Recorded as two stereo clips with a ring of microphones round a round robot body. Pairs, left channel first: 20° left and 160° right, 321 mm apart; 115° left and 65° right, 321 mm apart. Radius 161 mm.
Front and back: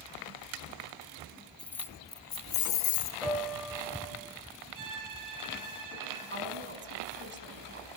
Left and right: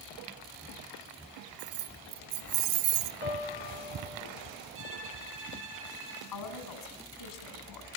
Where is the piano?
115° left, 3 m.